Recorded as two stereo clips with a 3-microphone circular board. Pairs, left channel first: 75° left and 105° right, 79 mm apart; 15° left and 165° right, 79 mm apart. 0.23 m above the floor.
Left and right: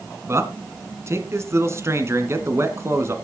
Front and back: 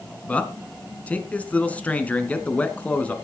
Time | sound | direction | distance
0.3 | a man speaking | 55° right | 1.9 m